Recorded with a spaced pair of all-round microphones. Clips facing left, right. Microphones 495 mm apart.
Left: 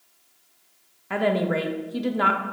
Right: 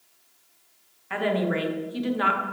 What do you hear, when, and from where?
1.1 s a woman speaking: 65° left (ahead or behind), 0.6 m